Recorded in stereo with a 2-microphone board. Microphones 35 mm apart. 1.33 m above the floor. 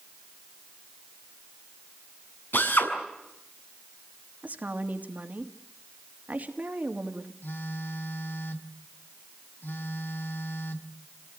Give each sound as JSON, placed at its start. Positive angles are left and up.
{"t": 2.5, "sound": "a drill", "side_deg": 80, "distance_m": 6.0}
{"t": 4.4, "sound": "a woman speaking", "side_deg": -50, "distance_m": 2.5}
{"t": 7.4, "sound": "a phone buzzing", "side_deg": 70, "distance_m": 1.6}